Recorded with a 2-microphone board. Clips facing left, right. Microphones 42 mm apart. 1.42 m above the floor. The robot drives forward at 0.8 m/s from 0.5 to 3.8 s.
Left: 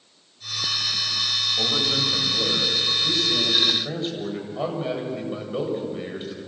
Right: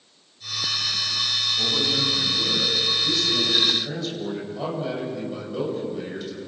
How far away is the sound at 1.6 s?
About 9 m.